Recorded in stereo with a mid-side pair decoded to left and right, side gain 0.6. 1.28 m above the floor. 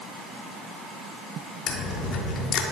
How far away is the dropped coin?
About 1.7 m.